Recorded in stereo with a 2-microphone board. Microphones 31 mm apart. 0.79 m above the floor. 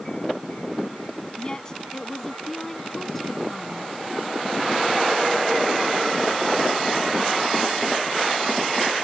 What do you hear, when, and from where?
1.4 s a woman speaking: 30° left (ahead or behind); by 3.9 s 10° left (ahead or behind)